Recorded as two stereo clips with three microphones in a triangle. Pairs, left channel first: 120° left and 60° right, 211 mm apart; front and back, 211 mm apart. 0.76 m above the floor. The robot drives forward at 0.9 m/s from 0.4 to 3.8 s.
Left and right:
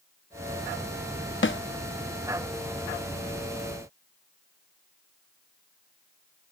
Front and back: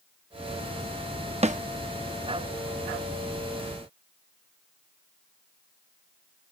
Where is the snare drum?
120° left; by 1.6 s 130° left.